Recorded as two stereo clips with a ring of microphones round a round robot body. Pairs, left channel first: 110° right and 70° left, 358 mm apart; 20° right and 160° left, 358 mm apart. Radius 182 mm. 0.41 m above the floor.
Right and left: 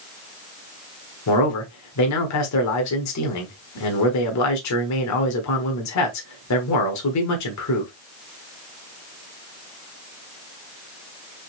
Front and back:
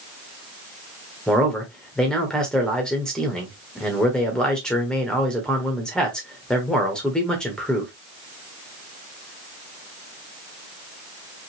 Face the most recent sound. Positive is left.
turn(degrees=-110)